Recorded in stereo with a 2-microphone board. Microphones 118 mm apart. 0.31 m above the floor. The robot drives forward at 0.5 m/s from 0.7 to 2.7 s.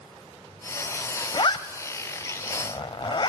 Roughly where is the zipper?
Left.